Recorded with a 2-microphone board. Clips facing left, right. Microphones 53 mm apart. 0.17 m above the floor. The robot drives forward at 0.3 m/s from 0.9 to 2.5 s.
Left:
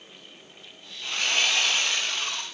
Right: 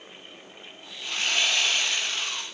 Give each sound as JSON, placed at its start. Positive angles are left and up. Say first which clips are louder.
{"t": 1.0, "sound": "sawing", "louder": "left 1 dB", "side_deg": 0, "distance_m": 4.5}